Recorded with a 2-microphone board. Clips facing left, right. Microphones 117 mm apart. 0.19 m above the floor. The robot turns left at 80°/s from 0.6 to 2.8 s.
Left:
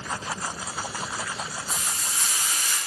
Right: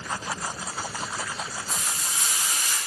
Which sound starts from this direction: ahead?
Frying, at 1.7 s.